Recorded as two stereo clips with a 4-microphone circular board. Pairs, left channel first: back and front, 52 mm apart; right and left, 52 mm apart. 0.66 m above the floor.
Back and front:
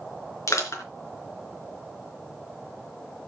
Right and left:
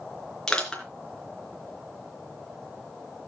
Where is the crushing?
170° right, 4 m.